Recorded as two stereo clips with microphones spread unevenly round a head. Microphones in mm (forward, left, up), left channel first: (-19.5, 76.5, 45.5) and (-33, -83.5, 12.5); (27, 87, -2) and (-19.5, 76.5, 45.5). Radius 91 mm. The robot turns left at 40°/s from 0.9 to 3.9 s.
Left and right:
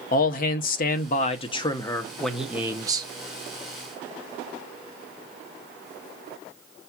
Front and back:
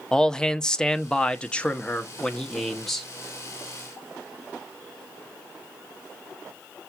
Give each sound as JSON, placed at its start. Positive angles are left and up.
{"t": 0.1, "sound": "a man speaking", "azimuth_deg": 45, "distance_m": 0.8}